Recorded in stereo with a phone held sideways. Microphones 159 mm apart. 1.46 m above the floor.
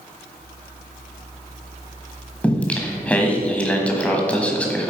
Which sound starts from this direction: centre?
Singing, at 2.4 s.